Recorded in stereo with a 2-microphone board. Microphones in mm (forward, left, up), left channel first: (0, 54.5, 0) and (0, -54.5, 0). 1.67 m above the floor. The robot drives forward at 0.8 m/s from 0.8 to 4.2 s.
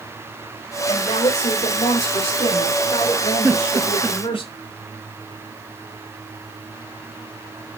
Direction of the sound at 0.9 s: 85° left.